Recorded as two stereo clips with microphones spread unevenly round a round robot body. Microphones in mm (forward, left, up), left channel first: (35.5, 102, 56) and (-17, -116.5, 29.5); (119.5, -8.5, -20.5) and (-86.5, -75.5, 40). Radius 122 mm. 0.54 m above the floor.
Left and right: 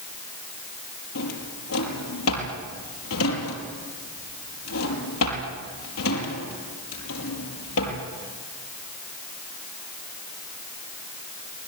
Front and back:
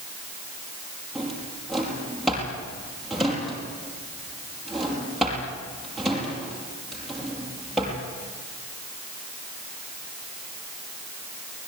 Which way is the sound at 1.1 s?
110° left.